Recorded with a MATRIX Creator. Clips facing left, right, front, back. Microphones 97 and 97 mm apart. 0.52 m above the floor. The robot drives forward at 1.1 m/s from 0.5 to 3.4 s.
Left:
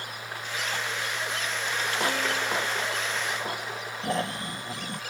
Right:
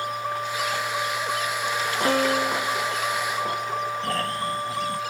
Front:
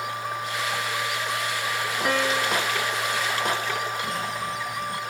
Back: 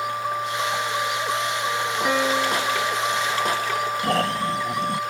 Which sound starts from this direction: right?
A piano, at 2.0 s.